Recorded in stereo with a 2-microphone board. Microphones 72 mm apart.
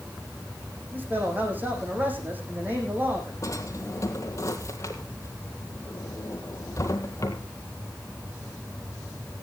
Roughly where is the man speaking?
Right.